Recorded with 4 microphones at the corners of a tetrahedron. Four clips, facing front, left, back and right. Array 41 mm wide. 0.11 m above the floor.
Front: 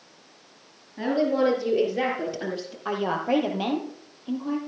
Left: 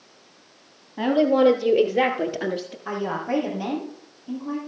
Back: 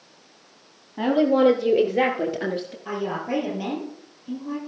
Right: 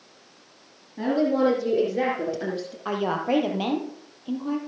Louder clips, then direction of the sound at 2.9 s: Right 2 dB, front 3 dB; 50° right.